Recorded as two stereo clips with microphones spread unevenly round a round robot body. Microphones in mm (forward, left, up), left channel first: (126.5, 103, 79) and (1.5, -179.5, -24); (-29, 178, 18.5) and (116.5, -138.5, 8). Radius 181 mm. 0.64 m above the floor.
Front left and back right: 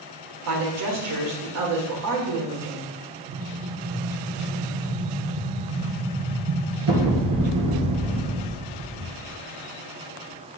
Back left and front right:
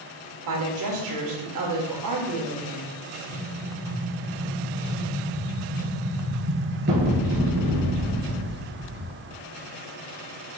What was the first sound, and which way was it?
A woman speaking, 100° right.